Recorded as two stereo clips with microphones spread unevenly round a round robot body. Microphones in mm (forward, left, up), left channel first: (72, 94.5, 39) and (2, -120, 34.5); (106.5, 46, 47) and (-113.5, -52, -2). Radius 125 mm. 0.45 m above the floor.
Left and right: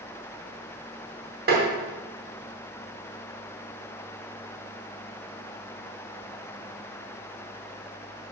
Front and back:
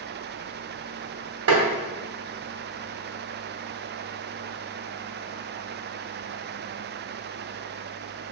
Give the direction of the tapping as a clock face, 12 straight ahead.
5 o'clock.